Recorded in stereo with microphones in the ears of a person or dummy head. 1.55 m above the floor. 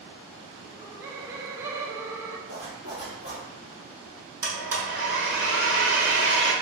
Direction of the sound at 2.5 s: 35° right (ahead or behind).